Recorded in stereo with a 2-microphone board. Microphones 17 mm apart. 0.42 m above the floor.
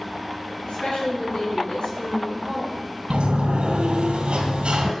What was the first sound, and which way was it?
A woman speaking, 70° left (ahead or behind).